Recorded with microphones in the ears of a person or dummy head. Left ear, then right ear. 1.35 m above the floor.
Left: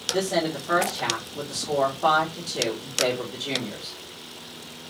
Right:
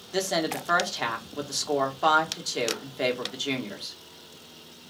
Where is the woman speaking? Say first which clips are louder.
Right 1 dB; 70° right (ahead or behind), 1.1 m.